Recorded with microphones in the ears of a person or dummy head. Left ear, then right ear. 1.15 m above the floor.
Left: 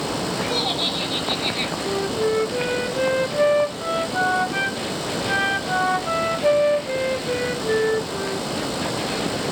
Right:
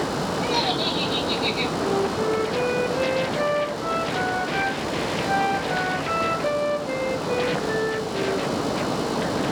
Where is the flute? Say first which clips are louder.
Left 1 dB; 10° left (ahead or behind), 0.8 m.